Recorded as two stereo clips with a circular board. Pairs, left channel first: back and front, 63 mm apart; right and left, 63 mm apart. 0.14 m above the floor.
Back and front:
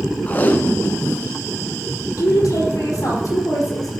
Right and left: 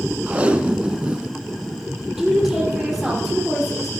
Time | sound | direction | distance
0.3 | tape being pulled | 145° left | 0.7 m
2.2 | a woman speaking | straight behind | 3.5 m